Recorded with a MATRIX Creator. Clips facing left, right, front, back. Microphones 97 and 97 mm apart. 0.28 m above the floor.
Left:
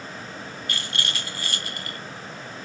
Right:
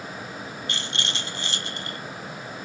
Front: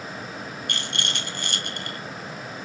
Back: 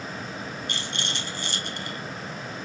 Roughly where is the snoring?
No snoring in this recording.